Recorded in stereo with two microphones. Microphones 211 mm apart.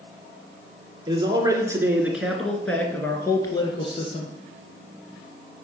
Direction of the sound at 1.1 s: 25° right (ahead or behind).